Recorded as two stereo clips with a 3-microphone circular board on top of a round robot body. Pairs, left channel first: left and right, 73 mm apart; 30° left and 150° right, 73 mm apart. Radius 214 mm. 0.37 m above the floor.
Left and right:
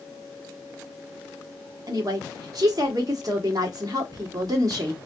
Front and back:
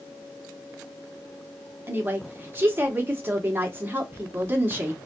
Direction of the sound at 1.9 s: 95° right.